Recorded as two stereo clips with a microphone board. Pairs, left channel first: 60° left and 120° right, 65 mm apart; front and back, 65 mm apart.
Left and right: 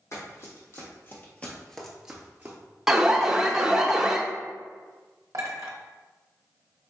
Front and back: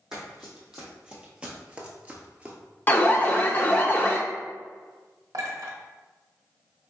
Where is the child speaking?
I don't hear a child speaking.